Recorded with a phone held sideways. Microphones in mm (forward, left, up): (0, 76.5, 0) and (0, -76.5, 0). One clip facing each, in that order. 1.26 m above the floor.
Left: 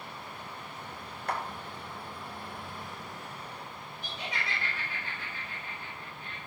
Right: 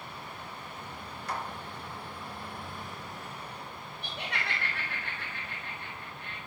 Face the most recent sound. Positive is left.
turn(degrees=-80)